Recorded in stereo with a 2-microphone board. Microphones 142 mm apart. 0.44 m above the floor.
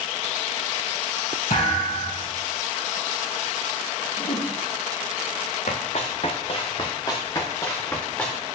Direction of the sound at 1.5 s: 75° left (ahead or behind).